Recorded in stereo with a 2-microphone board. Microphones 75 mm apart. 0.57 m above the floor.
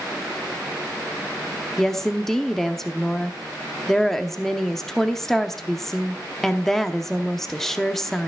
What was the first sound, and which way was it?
A woman speaking, 5° left (ahead or behind).